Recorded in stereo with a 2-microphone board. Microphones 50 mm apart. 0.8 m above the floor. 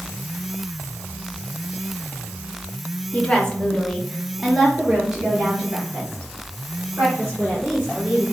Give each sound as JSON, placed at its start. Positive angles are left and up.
{"t": 3.1, "sound": "a woman speaking", "side_deg": 20, "distance_m": 1.1}